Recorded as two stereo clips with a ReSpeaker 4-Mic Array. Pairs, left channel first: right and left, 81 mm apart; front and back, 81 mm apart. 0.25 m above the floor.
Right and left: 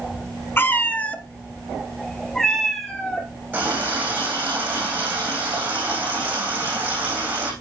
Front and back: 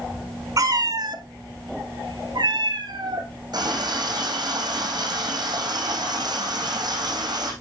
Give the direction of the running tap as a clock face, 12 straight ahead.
7 o'clock.